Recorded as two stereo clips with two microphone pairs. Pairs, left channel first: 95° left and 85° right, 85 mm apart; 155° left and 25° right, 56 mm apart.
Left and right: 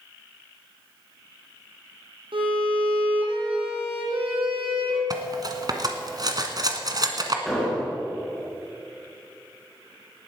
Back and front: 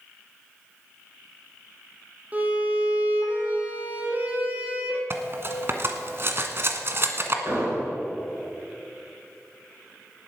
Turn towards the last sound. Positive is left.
turn(degrees=5)